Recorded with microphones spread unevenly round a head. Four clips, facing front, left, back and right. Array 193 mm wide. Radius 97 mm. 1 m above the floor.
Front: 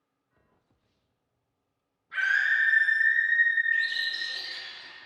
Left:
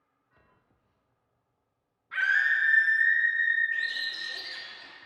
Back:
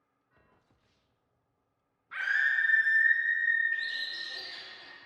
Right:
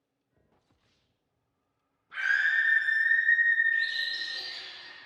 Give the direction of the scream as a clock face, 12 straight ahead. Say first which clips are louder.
Left 1 dB, front 4 dB; 9 o'clock.